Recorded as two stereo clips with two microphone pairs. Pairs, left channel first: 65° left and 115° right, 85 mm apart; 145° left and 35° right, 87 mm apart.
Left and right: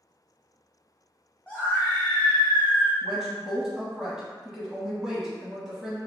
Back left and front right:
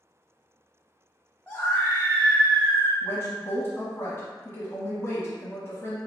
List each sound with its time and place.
1.5 s a scream: 115° left, 1.0 m
3.0 s a woman speaking: 170° left, 1.2 m